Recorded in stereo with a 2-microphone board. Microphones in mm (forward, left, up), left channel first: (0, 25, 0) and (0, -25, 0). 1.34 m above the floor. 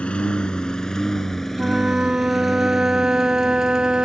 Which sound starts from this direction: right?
A flute, at 1.6 s.